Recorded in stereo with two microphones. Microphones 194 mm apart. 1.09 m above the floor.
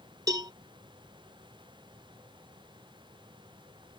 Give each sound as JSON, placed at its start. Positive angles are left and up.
{"t": 0.3, "sound": "a cowbell", "side_deg": -20}